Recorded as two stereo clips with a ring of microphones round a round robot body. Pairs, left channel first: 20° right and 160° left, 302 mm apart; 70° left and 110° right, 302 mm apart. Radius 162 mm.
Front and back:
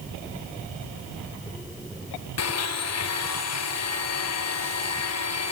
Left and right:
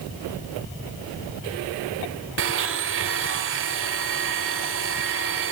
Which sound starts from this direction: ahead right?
A blender, at 2.4 s.